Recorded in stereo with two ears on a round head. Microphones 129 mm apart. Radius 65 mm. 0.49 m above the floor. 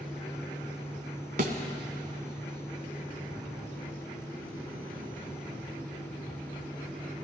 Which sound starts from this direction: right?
A thud, at 1.4 s.